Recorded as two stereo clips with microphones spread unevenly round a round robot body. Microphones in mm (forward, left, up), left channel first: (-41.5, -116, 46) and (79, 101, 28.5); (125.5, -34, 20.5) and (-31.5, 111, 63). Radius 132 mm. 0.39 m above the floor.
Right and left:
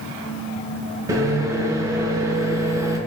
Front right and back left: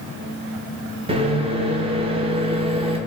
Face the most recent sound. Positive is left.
turn(degrees=95)